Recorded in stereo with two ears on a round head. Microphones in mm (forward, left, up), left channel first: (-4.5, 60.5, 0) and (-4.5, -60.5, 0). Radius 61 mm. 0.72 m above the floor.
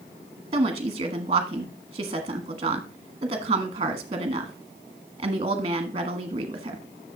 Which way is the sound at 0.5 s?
35° right (ahead or behind).